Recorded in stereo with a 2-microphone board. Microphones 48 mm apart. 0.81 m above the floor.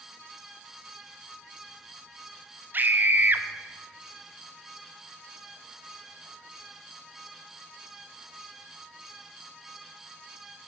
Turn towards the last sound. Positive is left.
turn(degrees=-45)  # may be behind; listen again after turning